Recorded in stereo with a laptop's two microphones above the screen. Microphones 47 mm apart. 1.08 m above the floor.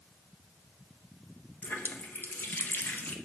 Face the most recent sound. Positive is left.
turn(degrees=45)  # may be behind; listen again after turning